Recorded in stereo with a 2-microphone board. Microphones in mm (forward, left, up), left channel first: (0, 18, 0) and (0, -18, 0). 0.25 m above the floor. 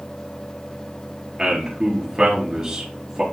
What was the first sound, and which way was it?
A man speaking, 10° right (ahead or behind).